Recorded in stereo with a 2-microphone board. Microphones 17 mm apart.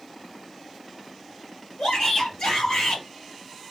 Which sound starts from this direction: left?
A shout, at 1.8 s.